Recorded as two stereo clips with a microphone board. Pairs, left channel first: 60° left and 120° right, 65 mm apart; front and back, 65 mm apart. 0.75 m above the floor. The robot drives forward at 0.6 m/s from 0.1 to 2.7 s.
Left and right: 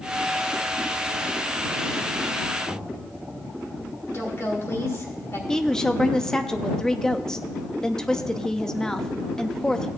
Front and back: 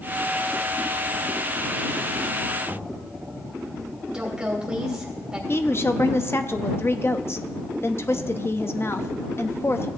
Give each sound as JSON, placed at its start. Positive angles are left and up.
{"t": 2.6, "sound": "knocking", "azimuth_deg": 65, "distance_m": 3.5}
{"t": 4.1, "sound": "a woman speaking", "azimuth_deg": 100, "distance_m": 3.0}
{"t": 5.5, "sound": "a woman speaking", "azimuth_deg": -15, "distance_m": 0.6}